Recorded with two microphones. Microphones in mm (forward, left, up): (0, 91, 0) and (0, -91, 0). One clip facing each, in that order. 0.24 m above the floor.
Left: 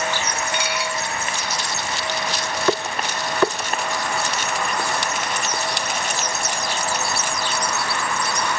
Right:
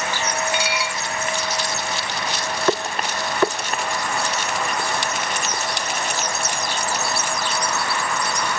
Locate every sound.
0.5 s dishes clattering: 55° left (ahead or behind), 1.5 m